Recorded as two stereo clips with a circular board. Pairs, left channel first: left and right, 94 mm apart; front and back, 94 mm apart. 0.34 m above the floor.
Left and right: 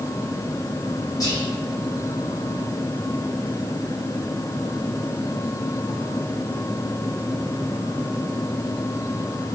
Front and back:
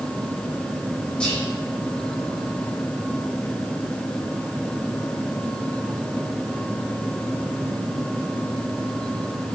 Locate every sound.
1.2 s whispering: 75° left, 1.2 m